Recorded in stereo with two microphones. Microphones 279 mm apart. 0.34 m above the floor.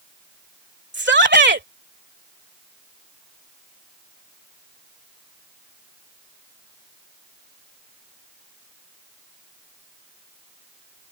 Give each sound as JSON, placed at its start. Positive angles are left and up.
{"t": 0.9, "sound": "a shout", "side_deg": -40}